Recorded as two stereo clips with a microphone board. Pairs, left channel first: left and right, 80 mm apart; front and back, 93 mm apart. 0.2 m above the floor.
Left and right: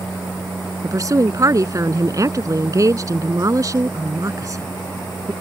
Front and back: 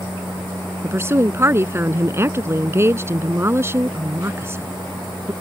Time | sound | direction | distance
0.8 | a woman speaking | 125° right | ?